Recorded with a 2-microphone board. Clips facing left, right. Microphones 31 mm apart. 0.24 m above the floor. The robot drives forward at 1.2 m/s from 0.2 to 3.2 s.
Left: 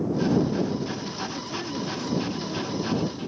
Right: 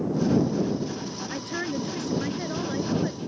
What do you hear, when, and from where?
1.3 s a woman speaking: 60° right (ahead or behind); by 3.2 s 65° right (ahead or behind)